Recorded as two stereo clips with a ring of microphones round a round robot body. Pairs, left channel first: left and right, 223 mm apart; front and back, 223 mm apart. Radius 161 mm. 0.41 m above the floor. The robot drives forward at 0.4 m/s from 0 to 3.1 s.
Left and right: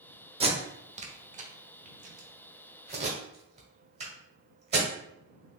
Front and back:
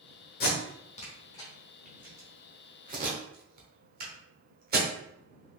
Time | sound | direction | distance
0.4 | tape being pulled | 30° right | 0.9 m